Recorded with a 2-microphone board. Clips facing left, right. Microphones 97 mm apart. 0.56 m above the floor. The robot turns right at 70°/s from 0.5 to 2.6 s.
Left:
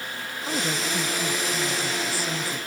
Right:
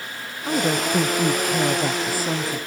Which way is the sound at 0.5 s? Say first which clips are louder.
Right 7 dB; 160° right.